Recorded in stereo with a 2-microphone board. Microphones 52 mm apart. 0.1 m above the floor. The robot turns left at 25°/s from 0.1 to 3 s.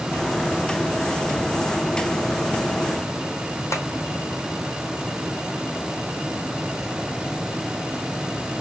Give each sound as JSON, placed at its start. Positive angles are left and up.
{"t": 3.7, "sound": "tapping", "side_deg": 65, "distance_m": 1.2}